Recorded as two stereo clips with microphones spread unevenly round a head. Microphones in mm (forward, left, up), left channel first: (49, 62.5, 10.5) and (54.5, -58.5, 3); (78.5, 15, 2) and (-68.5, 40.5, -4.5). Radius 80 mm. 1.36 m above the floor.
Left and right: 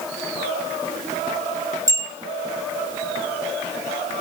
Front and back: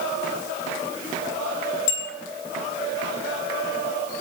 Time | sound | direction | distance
1.9 | a bicycle bell | 25° right | 9.5 m